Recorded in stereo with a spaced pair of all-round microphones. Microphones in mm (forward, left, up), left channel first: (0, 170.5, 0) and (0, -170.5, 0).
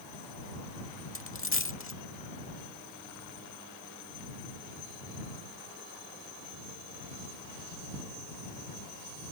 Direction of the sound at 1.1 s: 40° left (ahead or behind).